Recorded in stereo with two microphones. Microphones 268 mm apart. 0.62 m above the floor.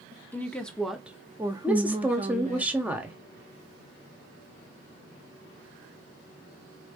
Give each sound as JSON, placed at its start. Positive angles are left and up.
{"t": 0.3, "sound": "a woman speaking", "side_deg": 5, "distance_m": 1.2}
{"t": 1.6, "sound": "a woman speaking", "side_deg": -5, "distance_m": 1.2}